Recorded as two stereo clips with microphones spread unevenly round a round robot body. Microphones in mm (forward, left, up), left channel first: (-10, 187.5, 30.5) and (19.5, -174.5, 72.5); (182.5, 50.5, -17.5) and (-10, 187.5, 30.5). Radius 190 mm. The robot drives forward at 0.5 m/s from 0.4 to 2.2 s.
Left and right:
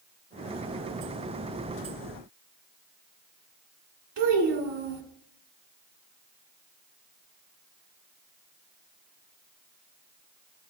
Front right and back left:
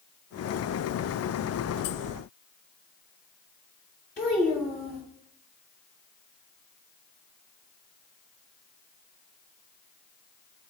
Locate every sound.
4.2 s a child speaking: 105° right, 1.7 m